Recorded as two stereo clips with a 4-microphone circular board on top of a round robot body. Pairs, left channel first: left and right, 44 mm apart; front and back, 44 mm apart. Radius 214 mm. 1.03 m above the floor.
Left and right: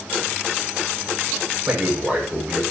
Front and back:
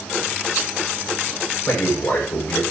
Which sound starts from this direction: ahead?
A man speaking, at 1.7 s.